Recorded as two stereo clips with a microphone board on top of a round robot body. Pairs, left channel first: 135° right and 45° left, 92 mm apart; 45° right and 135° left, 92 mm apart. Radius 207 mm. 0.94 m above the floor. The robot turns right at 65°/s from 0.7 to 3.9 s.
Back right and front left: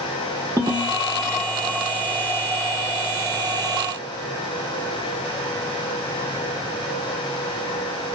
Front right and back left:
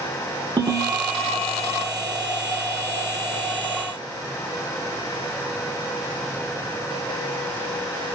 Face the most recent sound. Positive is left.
turn(degrees=-60)